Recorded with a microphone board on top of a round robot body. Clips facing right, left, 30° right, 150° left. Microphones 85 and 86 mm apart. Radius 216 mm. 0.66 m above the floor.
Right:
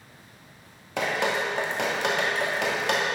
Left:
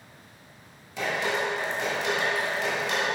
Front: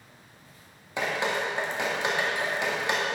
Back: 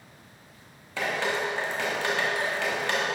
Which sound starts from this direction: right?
Dripping, at 1.0 s.